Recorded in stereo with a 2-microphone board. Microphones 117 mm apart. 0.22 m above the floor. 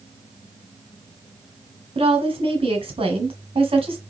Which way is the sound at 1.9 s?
50° right (ahead or behind).